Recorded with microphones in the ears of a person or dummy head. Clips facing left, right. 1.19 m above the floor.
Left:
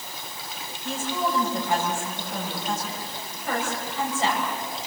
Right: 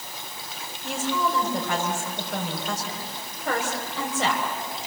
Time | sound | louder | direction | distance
0.8 | a woman speaking | right 1 dB | 60° right (ahead or behind) | 5.5 m